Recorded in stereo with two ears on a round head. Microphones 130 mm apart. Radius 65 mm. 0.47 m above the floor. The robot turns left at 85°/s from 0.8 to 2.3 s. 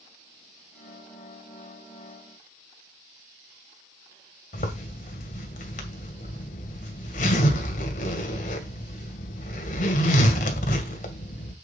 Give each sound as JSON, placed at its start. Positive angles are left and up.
{"t": 4.5, "sound": "a zipper", "side_deg": 60, "distance_m": 2.0}